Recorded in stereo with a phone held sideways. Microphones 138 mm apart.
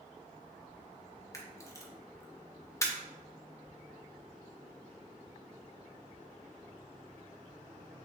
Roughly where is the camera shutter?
Left.